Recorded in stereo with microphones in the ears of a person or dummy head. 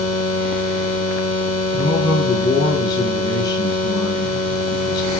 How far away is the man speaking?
About 5.5 m.